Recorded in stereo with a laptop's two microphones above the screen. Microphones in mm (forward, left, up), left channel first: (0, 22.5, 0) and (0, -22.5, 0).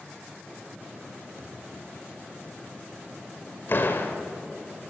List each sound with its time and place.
1.4 s a thud: 65° right (ahead or behind), 3 m
3.7 s a door slam: 50° left (ahead or behind), 2.5 m